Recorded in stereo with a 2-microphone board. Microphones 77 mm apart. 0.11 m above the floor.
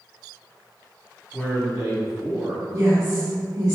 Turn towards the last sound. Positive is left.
turn(degrees=-35)  # may be behind; listen again after turning